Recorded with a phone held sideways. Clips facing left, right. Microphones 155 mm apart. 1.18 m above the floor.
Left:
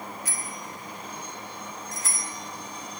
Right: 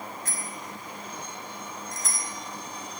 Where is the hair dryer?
No hair dryer in this recording.